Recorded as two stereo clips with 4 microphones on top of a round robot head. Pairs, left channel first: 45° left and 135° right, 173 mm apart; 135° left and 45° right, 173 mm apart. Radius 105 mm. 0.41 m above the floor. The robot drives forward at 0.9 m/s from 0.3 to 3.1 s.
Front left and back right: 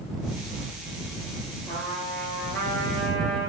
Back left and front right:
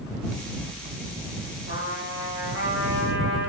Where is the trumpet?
35° right, 5.5 m; by 3.5 s 45° right, 4.5 m.